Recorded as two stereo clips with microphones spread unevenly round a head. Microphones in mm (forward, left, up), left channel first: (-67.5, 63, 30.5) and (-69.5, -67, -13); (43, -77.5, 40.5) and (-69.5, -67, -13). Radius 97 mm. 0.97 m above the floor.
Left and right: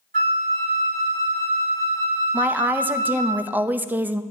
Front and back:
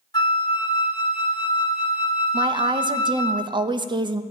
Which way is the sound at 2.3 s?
160° right.